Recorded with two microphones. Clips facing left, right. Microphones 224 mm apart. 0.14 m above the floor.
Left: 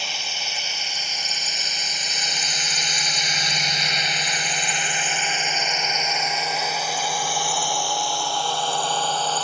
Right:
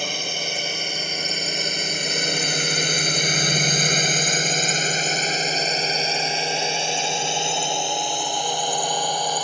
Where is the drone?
55° right (ahead or behind); by 9.4 s 15° right (ahead or behind).